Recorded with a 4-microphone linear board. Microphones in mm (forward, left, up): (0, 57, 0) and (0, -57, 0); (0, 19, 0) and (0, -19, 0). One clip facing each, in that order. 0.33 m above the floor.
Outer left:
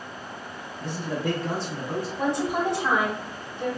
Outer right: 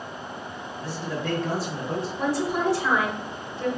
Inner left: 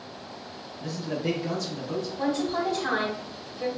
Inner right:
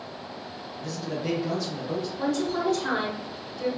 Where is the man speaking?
25° left (ahead or behind), 1.1 m; by 2.1 s 25° right (ahead or behind), 1.0 m.